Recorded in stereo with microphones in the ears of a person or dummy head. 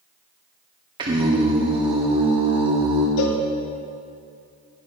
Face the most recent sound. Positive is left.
turn(degrees=70)  # may be behind; listen again after turning